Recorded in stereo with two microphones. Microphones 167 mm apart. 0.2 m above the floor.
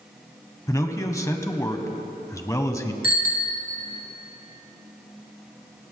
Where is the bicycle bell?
60° left (ahead or behind), 2 m.